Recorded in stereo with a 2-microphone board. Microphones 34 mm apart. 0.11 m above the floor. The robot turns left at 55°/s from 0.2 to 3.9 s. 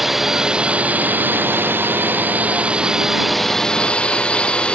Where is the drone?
10° right; by 4.7 s 150° left.